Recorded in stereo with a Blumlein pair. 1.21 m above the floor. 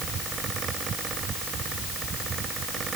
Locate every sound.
0.0 s a fan: 20° right